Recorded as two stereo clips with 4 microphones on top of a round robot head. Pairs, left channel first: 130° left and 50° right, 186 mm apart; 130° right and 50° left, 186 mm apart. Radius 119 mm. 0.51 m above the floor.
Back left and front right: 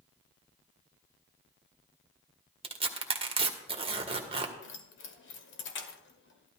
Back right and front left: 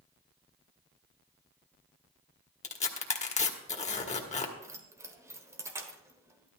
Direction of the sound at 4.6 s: 125° left.